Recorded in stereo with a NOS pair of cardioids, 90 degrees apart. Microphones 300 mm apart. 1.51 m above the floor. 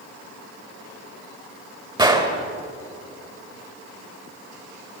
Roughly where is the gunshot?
Ahead.